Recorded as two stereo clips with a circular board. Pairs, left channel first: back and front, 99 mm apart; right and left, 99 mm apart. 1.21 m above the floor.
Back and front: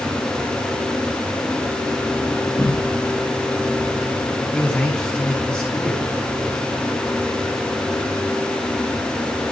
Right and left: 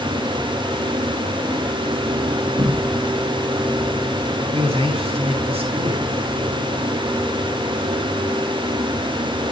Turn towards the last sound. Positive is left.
turn(degrees=100)